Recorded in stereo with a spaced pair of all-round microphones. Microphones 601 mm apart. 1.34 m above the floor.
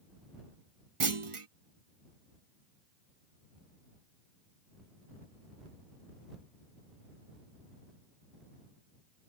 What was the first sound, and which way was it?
A clunk, 55° right (ahead or behind).